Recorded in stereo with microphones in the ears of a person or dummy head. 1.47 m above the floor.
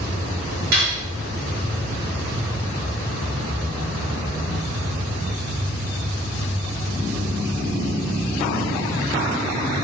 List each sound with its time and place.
0.7 s cutlery clinking: 60° right (ahead or behind), 1.2 m